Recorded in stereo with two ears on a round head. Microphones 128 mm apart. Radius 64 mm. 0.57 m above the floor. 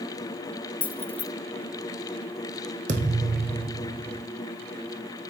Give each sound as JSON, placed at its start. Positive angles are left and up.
{"t": 0.8, "sound": "keys jangling", "side_deg": 10, "distance_m": 1.5}
{"t": 2.9, "sound": "a thud", "side_deg": -55, "distance_m": 3.0}